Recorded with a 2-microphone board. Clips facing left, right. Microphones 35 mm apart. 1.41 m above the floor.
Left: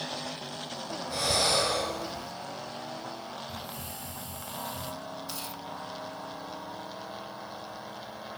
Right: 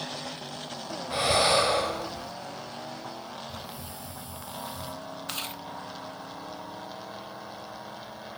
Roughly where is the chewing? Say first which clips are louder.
Right 3 dB; right.